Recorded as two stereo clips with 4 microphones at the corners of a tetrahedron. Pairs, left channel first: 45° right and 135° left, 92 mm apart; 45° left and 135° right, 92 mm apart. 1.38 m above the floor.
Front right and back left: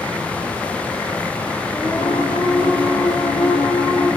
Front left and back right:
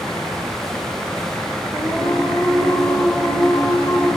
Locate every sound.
1.7 s singing: 35° right, 2.5 m